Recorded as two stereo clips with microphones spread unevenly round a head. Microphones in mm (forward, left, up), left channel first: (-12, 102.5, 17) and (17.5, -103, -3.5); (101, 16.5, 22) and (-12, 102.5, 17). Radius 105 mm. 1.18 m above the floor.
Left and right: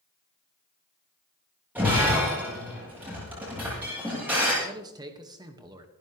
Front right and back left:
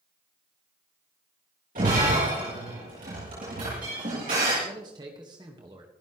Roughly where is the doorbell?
I don't hear a doorbell.